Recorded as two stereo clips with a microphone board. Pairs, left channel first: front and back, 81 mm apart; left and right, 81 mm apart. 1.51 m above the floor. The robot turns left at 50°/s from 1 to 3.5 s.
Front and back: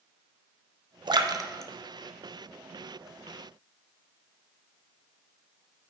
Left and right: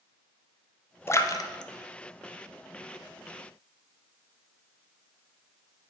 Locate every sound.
1.1 s a splash: 150° left, 0.6 m; by 3.1 s 50° left, 0.6 m